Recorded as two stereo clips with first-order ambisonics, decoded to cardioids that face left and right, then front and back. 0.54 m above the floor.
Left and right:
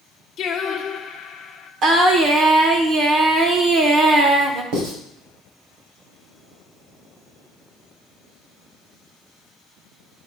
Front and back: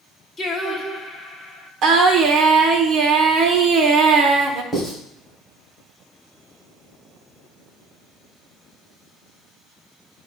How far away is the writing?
About 3.5 m.